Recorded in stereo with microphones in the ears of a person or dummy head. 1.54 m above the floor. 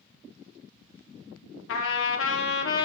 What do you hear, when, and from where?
1.7 s a trumpet: 70° left (ahead or behind), 1.5 m